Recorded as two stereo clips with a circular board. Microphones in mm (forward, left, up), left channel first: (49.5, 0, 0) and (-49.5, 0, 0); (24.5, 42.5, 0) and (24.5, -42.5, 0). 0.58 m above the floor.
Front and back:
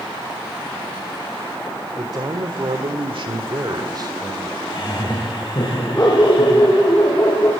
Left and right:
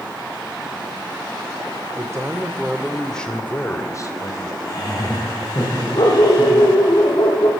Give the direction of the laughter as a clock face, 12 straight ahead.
10 o'clock.